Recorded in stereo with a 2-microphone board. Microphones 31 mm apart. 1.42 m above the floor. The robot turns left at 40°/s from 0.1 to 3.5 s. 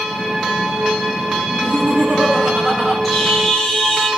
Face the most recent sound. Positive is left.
turn(degrees=25)  # may be behind; listen again after turning